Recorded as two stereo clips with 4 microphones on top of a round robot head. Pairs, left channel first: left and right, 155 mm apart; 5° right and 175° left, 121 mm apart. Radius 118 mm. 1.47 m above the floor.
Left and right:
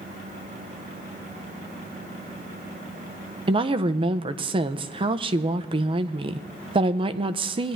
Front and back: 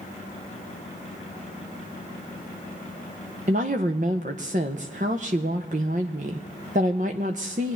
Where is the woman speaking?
135° right, 0.5 m.